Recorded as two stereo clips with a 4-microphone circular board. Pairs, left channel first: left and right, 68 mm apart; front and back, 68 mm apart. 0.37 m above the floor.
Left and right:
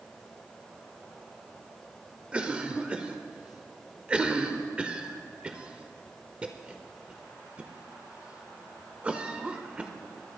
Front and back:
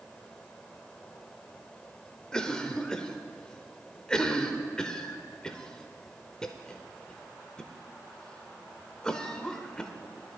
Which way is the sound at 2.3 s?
50° right.